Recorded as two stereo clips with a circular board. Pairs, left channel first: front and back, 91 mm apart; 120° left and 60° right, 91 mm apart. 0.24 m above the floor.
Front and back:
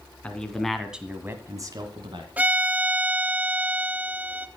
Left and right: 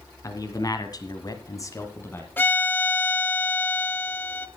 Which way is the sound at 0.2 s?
75° left.